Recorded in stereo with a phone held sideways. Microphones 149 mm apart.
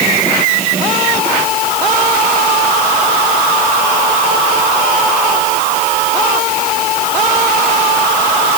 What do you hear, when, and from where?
Only background noise.